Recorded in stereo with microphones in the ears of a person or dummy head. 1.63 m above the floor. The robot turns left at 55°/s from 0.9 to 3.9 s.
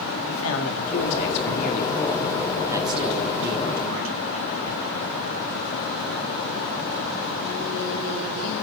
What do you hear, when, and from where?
0.3 s a man speaking: 85° left, 3.5 m; by 4.2 s 80° right, 3.5 m